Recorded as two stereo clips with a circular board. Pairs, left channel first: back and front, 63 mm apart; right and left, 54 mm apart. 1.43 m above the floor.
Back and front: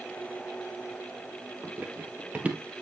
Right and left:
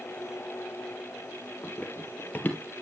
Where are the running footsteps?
55° right, 1.9 m.